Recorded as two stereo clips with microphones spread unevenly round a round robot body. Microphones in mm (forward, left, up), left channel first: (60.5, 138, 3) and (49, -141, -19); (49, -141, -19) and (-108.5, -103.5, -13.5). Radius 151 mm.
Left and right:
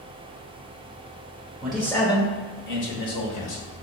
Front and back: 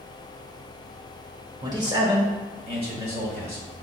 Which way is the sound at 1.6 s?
165° right.